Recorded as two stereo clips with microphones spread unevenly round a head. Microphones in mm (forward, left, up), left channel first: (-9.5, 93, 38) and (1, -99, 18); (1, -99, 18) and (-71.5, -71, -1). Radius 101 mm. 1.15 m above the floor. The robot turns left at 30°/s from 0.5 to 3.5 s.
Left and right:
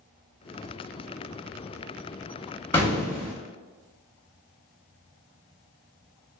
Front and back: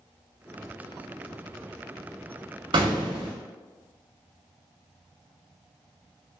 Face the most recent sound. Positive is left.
turn(degrees=145)